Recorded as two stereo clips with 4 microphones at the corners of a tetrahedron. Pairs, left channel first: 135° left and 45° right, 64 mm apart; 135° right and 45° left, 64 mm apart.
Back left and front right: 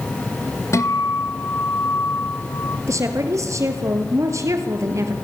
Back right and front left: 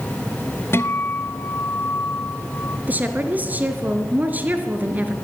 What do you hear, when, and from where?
0.7 s a guitar: 175° left, 1.5 m
2.9 s a woman speaking: 15° right, 3 m